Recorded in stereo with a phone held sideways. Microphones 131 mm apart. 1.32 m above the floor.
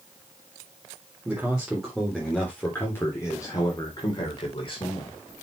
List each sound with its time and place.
1.2 s a man speaking: 10° right (ahead or behind), 3.5 m; by 5.2 s 45° left (ahead or behind), 4.5 m